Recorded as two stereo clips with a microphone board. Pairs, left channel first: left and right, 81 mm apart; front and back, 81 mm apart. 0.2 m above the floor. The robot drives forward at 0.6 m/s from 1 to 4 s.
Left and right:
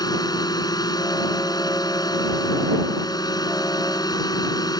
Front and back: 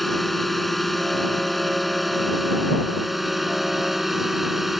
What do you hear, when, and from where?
0.0 s a drone: 90° left; by 4.8 s 95° left